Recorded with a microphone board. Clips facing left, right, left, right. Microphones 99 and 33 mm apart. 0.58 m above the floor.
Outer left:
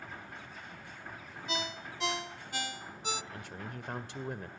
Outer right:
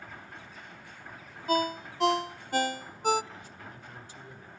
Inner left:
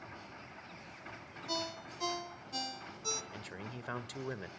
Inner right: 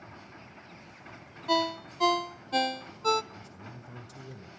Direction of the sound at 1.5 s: 45° right (ahead or behind).